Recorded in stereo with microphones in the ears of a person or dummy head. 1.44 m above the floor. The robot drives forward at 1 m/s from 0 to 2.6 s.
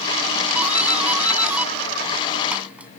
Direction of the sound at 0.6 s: 5° right (ahead or behind).